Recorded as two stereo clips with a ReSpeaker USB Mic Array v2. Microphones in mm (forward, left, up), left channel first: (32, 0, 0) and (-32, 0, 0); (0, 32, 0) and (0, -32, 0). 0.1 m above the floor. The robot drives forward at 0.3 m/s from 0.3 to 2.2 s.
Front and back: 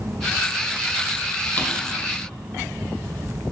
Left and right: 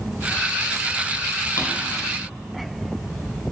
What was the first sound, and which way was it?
A drawer, 55° left.